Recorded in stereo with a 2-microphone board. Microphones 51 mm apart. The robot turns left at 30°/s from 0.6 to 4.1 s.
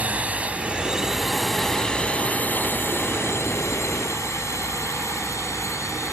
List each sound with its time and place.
0.0 s a drone: 25° right (ahead or behind); by 6.2 s 75° left (ahead or behind)